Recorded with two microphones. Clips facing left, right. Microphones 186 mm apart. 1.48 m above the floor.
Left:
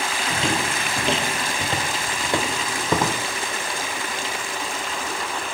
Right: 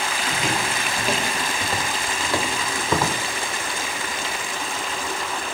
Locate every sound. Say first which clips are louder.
0.3 s footsteps: left 2 dB; 30° left (ahead or behind), 1.7 m; by 3.2 s 15° left (ahead or behind), 3.5 m